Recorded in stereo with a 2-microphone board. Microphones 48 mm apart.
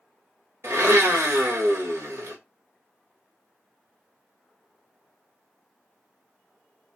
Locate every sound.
0.6 s a blender: 70° right (ahead or behind), 1.3 m